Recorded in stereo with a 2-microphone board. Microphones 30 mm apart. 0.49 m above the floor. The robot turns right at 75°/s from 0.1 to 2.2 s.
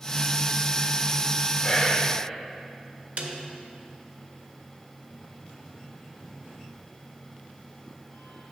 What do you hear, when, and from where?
1.6 s whispering: 5° right, 1.8 m; by 2.1 s 30° left, 1.8 m
3.2 s a snare drum: 55° right (ahead or behind), 1.0 m